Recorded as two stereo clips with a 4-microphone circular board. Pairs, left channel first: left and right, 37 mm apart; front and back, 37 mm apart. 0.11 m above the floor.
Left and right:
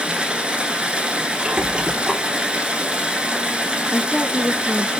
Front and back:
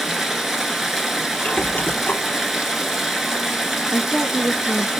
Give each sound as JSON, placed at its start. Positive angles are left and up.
{"t": 0.0, "sound": "running water", "azimuth_deg": -105, "distance_m": 0.9}
{"t": 1.4, "sound": "a squeak", "azimuth_deg": -35, "distance_m": 0.7}
{"t": 3.9, "sound": "a woman speaking", "azimuth_deg": -140, "distance_m": 1.2}